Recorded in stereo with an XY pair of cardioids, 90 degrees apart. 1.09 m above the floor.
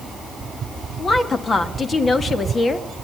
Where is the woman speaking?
45° left, 1.6 m.